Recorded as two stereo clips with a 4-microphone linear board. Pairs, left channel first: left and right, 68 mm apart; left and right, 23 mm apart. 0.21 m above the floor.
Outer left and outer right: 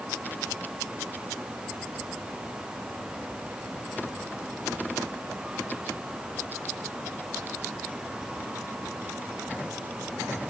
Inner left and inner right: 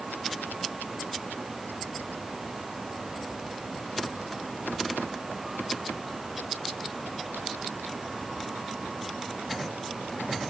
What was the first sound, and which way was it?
Only background noise.